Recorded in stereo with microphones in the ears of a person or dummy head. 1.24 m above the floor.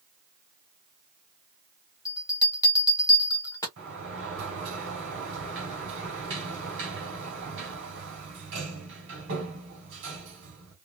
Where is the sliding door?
65° right (ahead or behind), 1.7 m.